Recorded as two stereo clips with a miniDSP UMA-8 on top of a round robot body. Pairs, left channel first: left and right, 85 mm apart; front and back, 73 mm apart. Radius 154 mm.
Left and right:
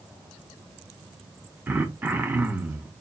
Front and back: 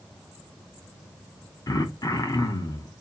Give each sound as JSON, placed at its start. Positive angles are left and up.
{"t": 1.7, "sound": "throat clearing", "azimuth_deg": -25, "distance_m": 1.1}